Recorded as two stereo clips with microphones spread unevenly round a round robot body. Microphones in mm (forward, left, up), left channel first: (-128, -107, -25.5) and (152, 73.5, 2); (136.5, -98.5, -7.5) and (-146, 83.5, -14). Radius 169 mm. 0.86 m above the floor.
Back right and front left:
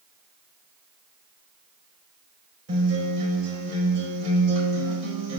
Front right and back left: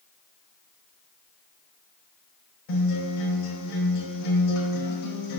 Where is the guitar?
15° right, 3.5 m.